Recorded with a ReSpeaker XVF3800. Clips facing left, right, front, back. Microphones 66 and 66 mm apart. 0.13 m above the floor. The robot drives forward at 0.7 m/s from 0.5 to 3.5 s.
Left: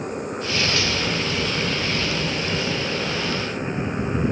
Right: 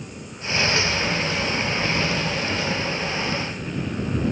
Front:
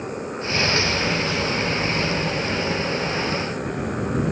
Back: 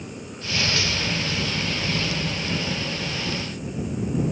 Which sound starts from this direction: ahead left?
A motorcycle, at 0.0 s.